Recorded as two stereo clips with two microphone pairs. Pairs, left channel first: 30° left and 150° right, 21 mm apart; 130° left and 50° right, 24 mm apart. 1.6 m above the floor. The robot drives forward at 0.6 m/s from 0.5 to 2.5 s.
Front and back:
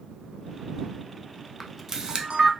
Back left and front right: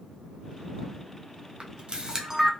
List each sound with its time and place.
1.6 s a camera shutter: 60° right, 0.5 m; by 2.5 s 130° right, 0.6 m